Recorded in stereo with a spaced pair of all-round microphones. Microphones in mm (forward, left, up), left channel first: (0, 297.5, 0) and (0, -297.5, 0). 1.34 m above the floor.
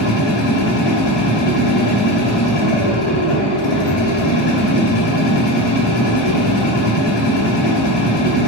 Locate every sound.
0.0 s a machine running: 80° left, 0.9 m